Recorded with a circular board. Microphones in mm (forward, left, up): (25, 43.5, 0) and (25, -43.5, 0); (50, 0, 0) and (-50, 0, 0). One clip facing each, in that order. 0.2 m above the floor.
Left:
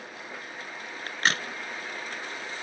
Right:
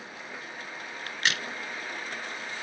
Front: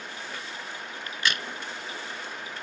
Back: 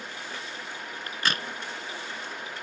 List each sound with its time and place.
1.1 s a crack: 135° left